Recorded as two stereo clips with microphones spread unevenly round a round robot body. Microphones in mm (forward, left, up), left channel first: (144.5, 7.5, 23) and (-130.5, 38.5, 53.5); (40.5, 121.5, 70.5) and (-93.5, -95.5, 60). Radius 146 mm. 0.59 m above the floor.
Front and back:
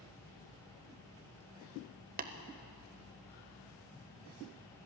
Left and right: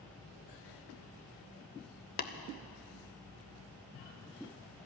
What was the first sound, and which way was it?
Tapping, 115° left.